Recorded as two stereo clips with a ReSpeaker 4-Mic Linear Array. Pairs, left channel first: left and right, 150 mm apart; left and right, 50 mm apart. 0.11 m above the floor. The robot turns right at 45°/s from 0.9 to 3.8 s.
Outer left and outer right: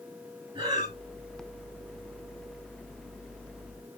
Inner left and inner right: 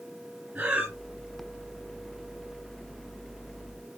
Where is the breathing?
30° right (ahead or behind), 1.9 m.